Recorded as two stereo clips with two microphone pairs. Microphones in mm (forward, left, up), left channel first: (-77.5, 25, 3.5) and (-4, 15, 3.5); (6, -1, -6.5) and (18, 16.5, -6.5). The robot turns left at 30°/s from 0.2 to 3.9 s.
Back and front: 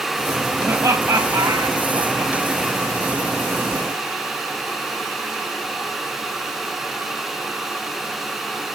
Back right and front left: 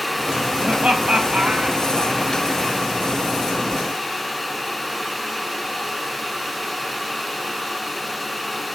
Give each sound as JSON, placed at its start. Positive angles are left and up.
{"t": 0.6, "sound": "laughter", "azimuth_deg": 40, "distance_m": 3.5}